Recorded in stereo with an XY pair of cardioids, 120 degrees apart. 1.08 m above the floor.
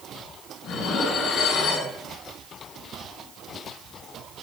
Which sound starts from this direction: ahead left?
Dishes clattering, at 0.6 s.